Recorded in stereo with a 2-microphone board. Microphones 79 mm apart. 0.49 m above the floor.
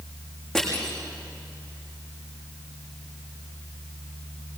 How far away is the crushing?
About 8 m.